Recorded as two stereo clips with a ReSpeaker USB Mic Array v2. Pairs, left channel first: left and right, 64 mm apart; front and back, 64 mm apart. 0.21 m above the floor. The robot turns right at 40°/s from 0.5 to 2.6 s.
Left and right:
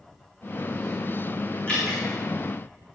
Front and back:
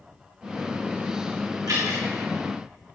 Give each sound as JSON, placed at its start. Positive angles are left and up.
{"t": 1.7, "sound": "dripping", "azimuth_deg": 165, "distance_m": 6.0}